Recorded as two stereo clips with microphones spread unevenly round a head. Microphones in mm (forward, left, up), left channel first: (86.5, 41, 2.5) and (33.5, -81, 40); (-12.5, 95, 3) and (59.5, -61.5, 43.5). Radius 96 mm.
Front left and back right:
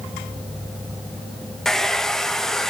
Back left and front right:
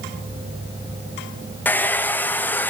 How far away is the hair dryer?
About 0.6 m.